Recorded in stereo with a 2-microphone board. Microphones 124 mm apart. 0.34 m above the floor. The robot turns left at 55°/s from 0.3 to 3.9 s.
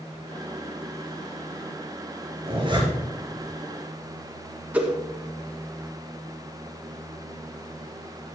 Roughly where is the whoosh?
Centre.